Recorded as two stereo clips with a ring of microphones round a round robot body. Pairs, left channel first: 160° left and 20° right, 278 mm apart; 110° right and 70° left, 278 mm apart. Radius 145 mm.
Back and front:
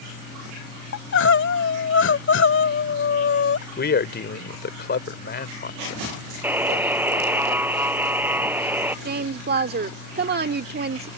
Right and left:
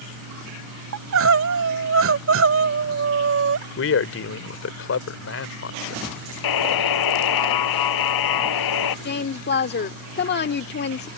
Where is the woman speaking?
70° right.